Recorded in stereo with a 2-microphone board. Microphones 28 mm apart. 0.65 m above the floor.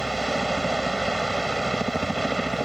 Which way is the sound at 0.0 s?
5° left (ahead or behind).